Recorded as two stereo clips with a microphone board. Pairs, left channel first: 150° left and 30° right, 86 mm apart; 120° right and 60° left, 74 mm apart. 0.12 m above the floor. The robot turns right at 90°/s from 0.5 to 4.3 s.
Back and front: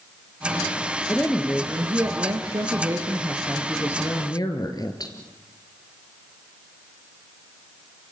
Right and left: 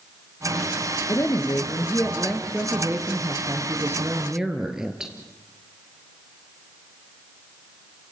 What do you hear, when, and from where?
1.1 s a woman speaking: 150° right, 2.5 m; by 5.1 s 140° left, 2.5 m